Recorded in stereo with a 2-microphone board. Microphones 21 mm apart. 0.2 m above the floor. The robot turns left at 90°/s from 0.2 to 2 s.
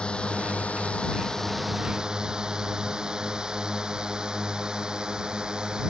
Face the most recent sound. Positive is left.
turn(degrees=-35)  # may be behind; listen again after turning